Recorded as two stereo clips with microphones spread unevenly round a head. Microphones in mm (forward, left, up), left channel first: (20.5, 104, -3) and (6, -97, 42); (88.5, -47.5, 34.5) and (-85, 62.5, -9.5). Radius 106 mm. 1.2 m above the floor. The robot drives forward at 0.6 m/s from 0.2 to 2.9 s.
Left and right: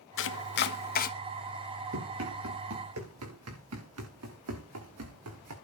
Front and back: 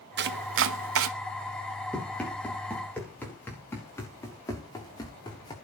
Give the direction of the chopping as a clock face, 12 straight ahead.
8 o'clock.